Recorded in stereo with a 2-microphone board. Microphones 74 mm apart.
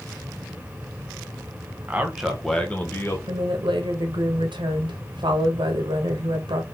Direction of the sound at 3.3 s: 85° right.